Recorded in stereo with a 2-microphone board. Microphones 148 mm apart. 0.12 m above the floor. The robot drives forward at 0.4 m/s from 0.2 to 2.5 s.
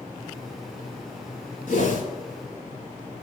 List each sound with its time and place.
1.7 s a whoosh: 60° left (ahead or behind), 6 m